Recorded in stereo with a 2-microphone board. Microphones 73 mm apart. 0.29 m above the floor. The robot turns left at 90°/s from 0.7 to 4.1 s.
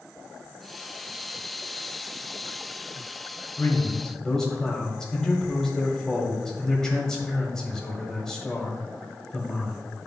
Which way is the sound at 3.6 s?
60° left.